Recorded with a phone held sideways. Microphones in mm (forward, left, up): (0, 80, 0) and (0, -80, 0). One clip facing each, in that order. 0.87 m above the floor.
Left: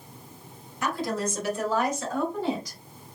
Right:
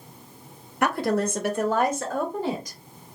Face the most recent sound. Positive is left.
turn(degrees=-45)  # may be behind; listen again after turning